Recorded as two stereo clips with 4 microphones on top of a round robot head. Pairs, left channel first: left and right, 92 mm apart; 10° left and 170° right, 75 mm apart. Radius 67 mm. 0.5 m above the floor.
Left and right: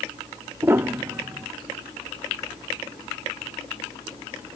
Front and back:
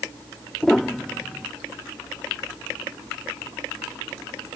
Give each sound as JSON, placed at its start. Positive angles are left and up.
{"t": 0.6, "sound": "a piano", "azimuth_deg": -70}